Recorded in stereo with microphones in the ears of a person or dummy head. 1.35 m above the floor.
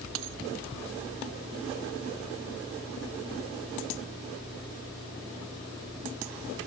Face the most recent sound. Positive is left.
turn(degrees=-70)  # may be behind; listen again after turning